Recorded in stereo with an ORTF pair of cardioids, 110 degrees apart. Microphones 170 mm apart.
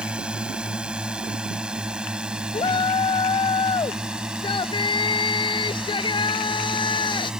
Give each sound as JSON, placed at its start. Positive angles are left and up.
{"t": 0.0, "sound": "a drone", "azimuth_deg": -5}
{"t": 2.5, "sound": "a shout", "azimuth_deg": 30}